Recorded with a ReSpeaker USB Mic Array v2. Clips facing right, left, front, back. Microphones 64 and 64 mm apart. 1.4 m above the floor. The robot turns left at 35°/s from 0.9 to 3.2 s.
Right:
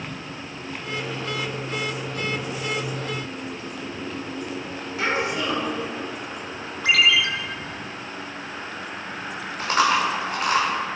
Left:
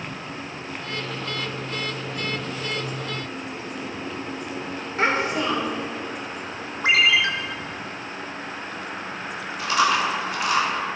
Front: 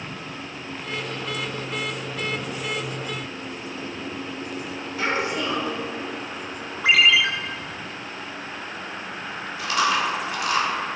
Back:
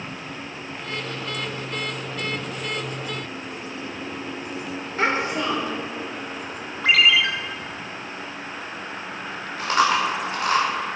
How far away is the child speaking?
About 3.5 m.